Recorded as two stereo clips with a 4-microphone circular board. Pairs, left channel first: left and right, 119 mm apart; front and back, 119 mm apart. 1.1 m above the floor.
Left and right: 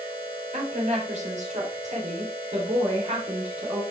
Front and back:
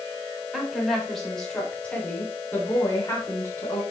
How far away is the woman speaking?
About 3.5 m.